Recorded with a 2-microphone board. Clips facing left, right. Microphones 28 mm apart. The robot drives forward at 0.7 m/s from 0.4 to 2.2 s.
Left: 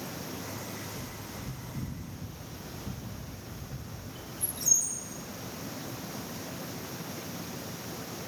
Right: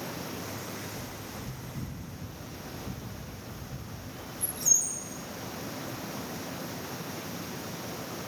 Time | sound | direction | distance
0.9 | a bird | 40° left (ahead or behind) | 1.5 m